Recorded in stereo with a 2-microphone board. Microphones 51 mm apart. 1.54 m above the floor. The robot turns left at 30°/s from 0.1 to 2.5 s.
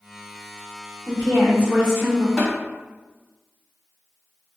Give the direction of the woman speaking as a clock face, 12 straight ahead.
4 o'clock.